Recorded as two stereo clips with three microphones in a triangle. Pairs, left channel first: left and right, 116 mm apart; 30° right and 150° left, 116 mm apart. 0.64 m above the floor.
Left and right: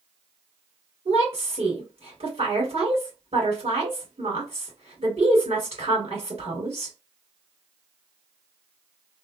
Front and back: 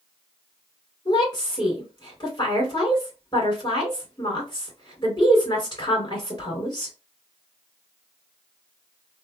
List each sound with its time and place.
1.1 s a woman speaking: 75° right, 2 m